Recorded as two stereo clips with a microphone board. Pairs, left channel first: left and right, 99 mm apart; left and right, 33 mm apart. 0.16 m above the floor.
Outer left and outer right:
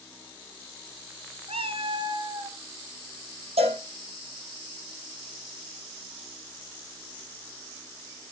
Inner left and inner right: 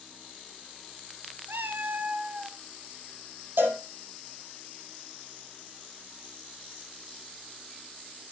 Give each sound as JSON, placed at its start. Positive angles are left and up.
{"t": 1.5, "sound": "a cat meowing", "side_deg": -65, "distance_m": 0.6}
{"t": 3.6, "sound": "a cowbell", "side_deg": -70, "distance_m": 5.5}